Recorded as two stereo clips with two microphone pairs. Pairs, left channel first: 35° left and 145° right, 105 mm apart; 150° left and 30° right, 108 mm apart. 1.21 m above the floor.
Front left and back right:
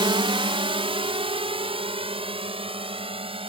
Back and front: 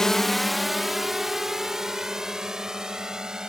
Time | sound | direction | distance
0.0 | a drone | 130° right | ?